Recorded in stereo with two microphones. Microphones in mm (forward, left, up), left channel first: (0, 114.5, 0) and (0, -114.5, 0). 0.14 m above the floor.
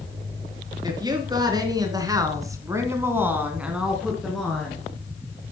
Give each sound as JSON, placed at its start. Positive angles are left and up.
{"t": 0.8, "sound": "a woman speaking", "side_deg": -20, "distance_m": 2.5}